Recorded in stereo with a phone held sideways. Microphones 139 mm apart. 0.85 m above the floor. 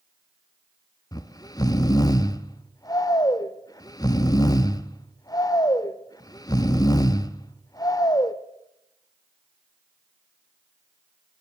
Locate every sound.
1.1 s snoring: 25° left (ahead or behind), 0.6 m